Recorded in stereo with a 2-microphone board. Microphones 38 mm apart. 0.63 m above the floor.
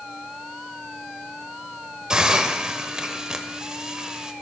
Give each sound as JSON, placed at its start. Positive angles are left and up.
{"t": 2.1, "sound": "a hiss", "side_deg": -20, "distance_m": 0.8}